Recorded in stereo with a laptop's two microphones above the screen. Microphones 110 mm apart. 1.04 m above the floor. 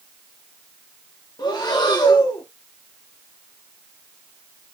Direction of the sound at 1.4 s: 40° left (ahead or behind).